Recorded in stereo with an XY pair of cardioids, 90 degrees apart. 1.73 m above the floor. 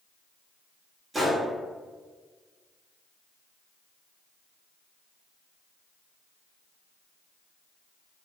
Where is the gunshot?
35° right, 0.9 m.